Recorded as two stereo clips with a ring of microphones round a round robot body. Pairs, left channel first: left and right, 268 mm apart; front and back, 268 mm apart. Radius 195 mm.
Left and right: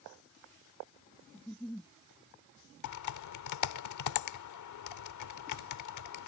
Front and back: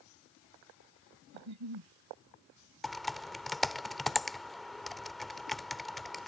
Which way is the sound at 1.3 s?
175° left.